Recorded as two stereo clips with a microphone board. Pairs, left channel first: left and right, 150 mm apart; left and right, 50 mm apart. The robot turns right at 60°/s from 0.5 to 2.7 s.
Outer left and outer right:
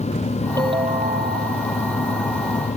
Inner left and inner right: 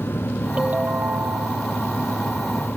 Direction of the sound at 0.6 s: 155° right.